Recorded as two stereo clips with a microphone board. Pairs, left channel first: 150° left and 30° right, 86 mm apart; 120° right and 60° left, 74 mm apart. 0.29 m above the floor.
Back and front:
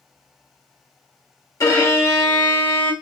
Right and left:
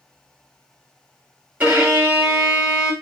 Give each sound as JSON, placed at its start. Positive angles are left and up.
{"t": 1.6, "sound": "a violin", "azimuth_deg": 125, "distance_m": 1.2}